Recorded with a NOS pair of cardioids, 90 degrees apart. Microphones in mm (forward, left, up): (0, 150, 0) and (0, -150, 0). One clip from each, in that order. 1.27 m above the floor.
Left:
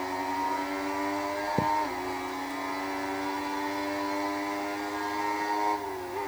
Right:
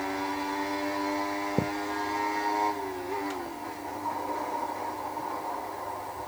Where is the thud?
10° right.